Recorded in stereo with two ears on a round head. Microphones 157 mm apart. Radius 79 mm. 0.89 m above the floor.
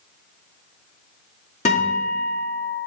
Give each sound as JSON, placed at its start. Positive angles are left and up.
{"t": 1.6, "sound": "a guitar", "side_deg": 40, "distance_m": 1.9}